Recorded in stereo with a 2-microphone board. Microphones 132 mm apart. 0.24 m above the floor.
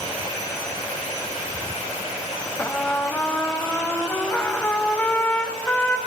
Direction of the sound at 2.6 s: 15° left (ahead or behind).